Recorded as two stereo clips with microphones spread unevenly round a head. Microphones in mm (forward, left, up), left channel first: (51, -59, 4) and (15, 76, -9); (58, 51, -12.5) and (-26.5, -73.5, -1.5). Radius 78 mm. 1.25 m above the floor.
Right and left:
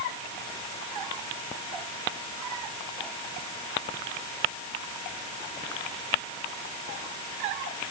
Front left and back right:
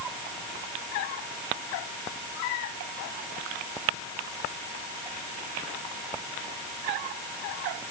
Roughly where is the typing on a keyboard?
No typing on a keyboard in this recording.